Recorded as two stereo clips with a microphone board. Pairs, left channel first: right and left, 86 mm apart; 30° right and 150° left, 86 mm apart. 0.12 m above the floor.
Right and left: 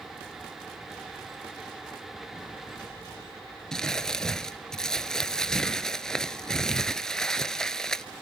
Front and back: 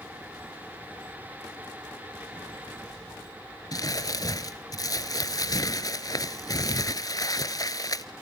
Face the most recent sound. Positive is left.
turn(degrees=-10)